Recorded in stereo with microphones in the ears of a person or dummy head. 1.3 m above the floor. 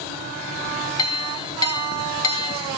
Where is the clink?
20° left (ahead or behind), 0.8 m.